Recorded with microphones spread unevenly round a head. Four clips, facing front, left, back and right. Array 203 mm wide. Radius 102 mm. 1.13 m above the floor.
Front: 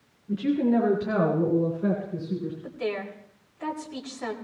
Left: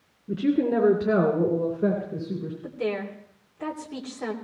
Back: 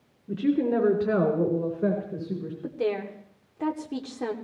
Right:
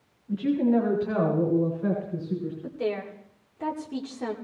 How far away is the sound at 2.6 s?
About 2.5 m.